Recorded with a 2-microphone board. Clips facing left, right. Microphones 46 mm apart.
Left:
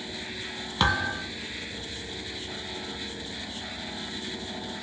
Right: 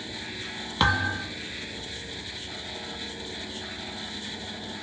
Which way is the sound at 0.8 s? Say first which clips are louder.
Right 1 dB; 5° right (ahead or behind).